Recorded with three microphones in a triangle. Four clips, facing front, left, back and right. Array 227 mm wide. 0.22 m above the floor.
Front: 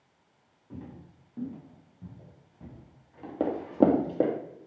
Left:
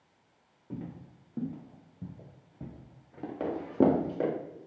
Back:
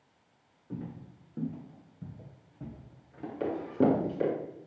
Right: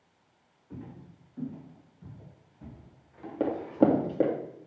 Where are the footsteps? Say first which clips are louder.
Left 3 dB, back 3 dB; 105° left, 5 m; by 4.0 s 100° left, 2.5 m.